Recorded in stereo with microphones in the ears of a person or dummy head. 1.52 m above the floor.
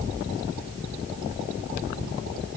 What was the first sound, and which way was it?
Only background noise.